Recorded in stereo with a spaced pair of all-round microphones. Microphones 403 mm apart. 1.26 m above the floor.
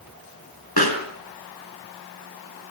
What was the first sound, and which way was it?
A pop, 70° left (ahead or behind).